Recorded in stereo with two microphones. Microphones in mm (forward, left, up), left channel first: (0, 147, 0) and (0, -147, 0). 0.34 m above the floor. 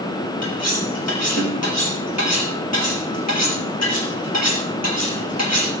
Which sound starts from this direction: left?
Cutlery clinking, at 0.4 s.